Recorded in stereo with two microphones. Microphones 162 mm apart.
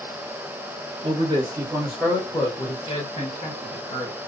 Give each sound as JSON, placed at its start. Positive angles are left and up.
{"t": 1.0, "sound": "a man speaking", "side_deg": -35, "distance_m": 1.2}